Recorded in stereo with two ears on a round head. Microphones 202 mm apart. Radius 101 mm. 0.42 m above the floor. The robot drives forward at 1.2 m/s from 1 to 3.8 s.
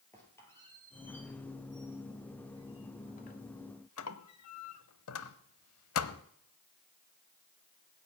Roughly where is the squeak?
Centre.